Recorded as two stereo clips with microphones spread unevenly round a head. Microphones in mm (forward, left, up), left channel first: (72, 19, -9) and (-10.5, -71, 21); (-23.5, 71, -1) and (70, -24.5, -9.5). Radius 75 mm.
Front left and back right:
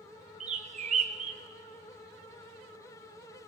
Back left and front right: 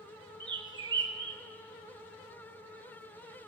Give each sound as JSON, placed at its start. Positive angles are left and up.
{"t": 0.4, "sound": "a bird", "azimuth_deg": -110, "distance_m": 1.0}